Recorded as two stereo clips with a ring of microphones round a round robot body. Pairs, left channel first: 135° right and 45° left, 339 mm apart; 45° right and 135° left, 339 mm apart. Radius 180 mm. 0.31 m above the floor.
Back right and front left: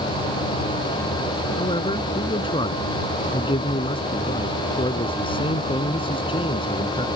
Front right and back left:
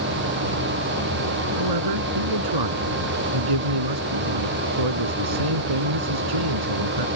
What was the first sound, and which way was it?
A man speaking, 150° left.